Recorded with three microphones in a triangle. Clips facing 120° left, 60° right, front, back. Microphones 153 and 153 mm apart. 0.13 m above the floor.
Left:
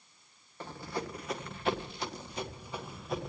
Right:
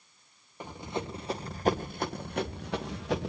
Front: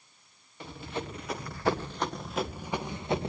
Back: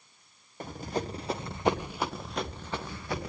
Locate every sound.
0.6 s running footsteps: 135° right, 2.5 m; by 3.3 s 65° right, 2.5 m